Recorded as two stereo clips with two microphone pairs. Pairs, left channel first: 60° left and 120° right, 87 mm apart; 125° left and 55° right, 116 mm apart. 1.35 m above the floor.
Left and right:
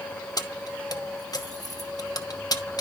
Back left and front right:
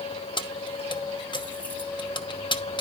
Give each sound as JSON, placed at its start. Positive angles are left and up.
{"t": 0.4, "sound": "keys jangling", "azimuth_deg": 90, "distance_m": 1.1}